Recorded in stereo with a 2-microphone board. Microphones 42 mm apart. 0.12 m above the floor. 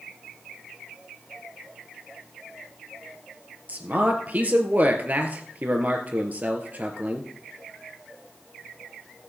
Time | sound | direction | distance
3.7 | a man speaking | 35° right (ahead or behind) | 2.5 m